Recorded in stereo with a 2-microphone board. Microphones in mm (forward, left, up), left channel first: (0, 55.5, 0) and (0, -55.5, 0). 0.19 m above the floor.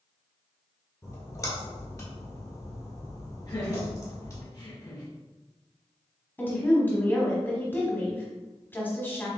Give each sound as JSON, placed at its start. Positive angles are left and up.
{"t": 1.0, "sound": "a splash", "side_deg": 30, "distance_m": 1.5}
{"t": 3.5, "sound": "laughter", "side_deg": 40, "distance_m": 1.2}
{"t": 6.4, "sound": "a woman speaking", "side_deg": 20, "distance_m": 1.0}